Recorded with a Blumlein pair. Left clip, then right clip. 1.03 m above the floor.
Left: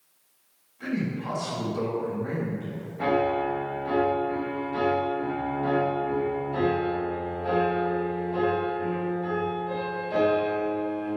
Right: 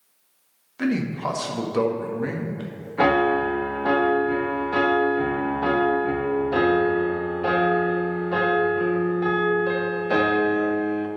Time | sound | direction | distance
0.8 | a man speaking | 50° right | 1.5 m
3.0 | a piano | 45° right | 1.1 m